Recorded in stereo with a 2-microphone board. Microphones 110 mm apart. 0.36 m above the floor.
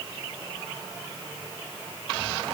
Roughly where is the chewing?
I don't hear chewing.